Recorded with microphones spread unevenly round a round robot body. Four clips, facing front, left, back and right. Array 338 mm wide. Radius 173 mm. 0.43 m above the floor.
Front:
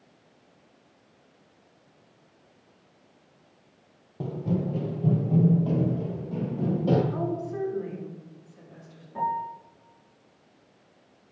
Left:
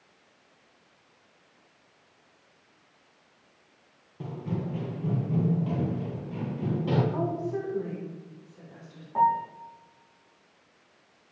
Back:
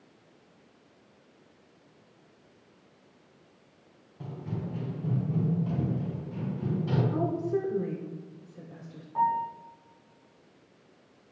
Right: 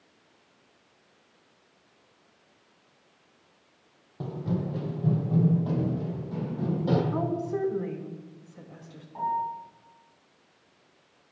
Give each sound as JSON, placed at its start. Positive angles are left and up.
{"t": 4.2, "sound": "running footsteps", "azimuth_deg": -10, "distance_m": 3.0}
{"t": 7.1, "sound": "a woman speaking", "azimuth_deg": -140, "distance_m": 4.0}
{"t": 9.2, "sound": "a piano", "azimuth_deg": 50, "distance_m": 7.5}